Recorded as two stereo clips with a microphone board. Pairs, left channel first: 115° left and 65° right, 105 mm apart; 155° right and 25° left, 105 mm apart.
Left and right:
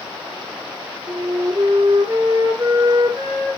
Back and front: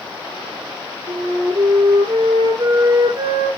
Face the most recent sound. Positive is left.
turn(degrees=-25)